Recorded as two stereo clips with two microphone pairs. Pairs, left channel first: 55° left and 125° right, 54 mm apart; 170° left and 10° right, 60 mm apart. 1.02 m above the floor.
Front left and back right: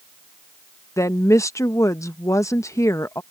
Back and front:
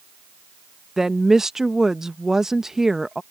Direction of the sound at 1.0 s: 70° left.